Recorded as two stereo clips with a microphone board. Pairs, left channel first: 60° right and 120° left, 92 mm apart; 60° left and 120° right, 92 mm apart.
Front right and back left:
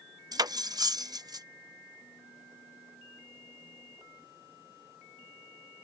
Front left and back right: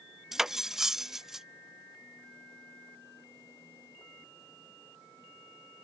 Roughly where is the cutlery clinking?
Behind left.